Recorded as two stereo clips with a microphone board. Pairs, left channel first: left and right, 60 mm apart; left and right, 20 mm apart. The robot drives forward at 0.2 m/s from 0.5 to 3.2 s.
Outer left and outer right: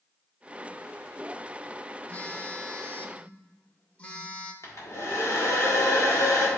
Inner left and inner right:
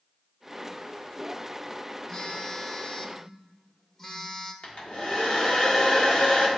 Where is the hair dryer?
55° left (ahead or behind), 1.5 m.